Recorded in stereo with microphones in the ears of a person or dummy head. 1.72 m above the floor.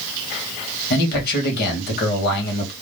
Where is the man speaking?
60° left (ahead or behind), 1.7 m.